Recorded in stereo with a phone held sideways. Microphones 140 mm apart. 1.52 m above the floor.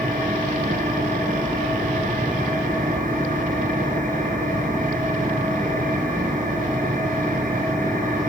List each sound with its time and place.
0.0 s an engine running: 80° right, 8 m